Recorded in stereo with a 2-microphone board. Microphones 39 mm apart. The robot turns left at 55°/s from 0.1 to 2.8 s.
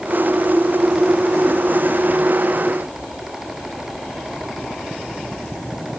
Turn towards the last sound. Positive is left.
No sound to turn to.